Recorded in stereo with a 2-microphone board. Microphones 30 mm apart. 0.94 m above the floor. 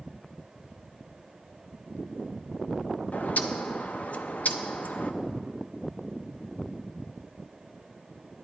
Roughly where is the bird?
Left.